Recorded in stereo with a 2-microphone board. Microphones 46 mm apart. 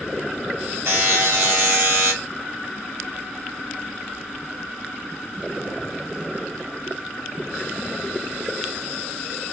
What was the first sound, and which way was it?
A buzzer, 60° right (ahead or behind).